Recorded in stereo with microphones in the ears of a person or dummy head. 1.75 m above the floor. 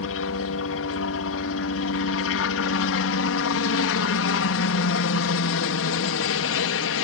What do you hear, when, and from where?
0.0 s a helicopter: 70° left (ahead or behind)